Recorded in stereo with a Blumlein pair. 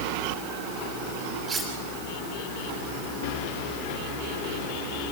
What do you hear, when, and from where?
1.5 s cutlery clinking: 15° right, 6.5 m